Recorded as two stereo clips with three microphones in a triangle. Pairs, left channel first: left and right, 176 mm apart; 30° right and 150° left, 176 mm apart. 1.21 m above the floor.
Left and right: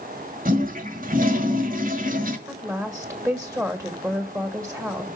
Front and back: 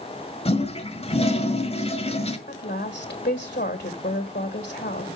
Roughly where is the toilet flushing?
Right.